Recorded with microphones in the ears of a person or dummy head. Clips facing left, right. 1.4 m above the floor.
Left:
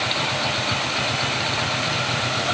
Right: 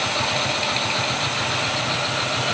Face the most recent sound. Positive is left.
No sound to turn to.